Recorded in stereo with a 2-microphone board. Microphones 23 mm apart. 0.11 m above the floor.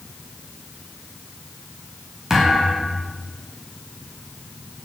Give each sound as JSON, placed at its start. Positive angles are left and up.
{"t": 2.3, "sound": "a thud", "side_deg": -15, "distance_m": 7.0}